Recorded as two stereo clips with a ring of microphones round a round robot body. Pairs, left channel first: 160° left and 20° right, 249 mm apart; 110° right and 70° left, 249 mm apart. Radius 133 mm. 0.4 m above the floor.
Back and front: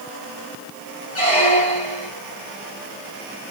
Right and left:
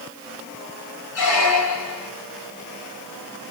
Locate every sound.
1.1 s a squeak: 135° right, 2.0 m